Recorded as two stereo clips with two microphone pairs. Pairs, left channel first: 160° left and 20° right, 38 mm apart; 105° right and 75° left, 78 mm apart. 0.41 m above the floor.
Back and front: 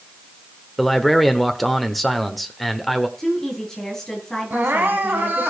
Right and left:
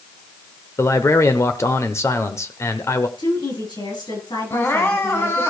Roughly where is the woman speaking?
Behind right.